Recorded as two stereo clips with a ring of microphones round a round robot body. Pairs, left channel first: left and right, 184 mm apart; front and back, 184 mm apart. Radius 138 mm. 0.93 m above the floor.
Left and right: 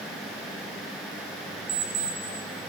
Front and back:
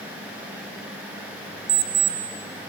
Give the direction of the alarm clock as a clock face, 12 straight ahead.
5 o'clock.